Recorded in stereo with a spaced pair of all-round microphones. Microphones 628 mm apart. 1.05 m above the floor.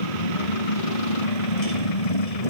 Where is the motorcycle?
70° left (ahead or behind).